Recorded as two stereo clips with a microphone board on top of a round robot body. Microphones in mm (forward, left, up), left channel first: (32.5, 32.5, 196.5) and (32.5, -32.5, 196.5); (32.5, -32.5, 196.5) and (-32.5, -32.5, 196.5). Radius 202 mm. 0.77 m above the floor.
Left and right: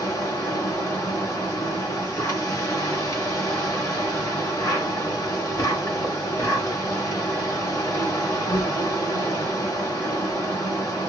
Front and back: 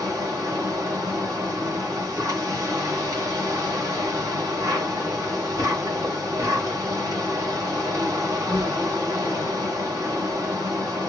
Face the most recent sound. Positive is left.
turn(degrees=140)